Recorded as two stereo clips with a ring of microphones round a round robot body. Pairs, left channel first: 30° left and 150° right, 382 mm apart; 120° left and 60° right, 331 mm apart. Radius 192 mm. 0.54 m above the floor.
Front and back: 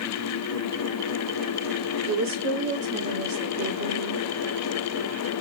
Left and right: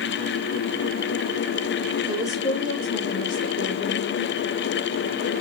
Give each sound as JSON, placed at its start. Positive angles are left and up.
{"t": 2.1, "sound": "a woman speaking", "azimuth_deg": -140, "distance_m": 1.1}